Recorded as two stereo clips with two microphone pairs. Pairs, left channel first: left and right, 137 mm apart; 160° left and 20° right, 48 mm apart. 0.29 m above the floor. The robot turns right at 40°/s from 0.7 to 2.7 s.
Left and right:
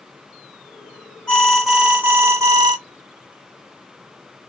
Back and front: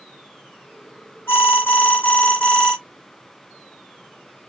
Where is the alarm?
165° left, 1.8 m; by 2.8 s 135° right, 1.8 m.